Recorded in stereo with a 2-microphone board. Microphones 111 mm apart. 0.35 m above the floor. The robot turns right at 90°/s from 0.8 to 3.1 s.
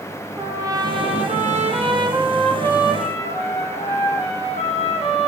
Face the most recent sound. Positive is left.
turn(degrees=60)